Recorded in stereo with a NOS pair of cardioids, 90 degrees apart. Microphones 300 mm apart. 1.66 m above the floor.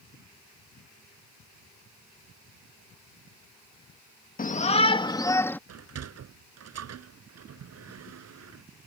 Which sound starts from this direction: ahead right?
A sliding door, at 5.7 s.